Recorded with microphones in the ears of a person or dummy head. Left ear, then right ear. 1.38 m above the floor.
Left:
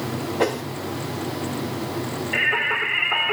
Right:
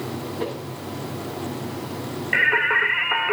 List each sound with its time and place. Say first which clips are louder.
0.4 s a whoosh: left 8 dB; 35° left (ahead or behind), 1.3 m
2.3 s singing: right 3 dB; 60° right (ahead or behind), 2.5 m